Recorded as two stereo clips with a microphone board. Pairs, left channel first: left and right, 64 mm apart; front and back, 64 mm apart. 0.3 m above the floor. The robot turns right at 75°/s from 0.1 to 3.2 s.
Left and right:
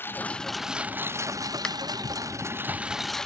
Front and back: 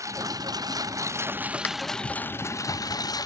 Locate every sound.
0.0 s a lawn mower: 145° left; by 3.3 s 5° left
1.6 s a finger snap: 25° left; by 1.8 s 35° left